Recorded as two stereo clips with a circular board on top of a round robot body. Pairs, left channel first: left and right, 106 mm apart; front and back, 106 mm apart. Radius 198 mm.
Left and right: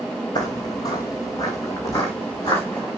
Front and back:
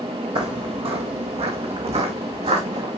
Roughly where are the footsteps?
Behind left.